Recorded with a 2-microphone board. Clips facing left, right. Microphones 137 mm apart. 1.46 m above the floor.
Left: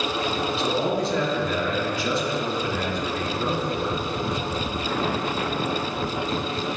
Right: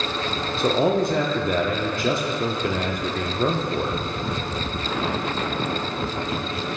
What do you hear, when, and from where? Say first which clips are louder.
0.6 s a man speaking: right 6 dB; 50° right (ahead or behind), 0.5 m